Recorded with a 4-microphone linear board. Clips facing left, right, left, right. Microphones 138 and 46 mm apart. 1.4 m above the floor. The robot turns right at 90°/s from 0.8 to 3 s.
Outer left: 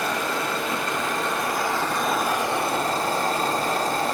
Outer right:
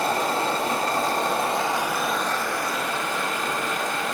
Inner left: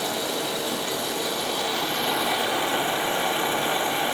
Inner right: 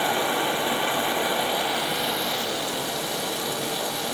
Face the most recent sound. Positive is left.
turn(degrees=80)